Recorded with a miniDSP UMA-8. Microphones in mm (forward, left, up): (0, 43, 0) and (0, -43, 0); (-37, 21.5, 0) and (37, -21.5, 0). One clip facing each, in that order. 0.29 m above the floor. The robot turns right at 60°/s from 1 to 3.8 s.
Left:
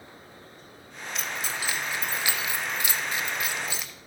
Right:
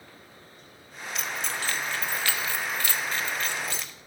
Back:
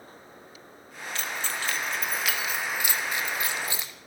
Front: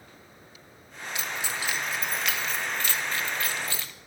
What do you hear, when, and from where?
1.1 s keys jangling: straight ahead, 0.7 m; by 3.9 s 160° left, 0.7 m